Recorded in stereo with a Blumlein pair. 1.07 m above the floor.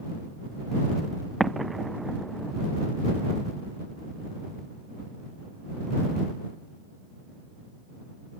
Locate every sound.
1.4 s an explosion: 10° right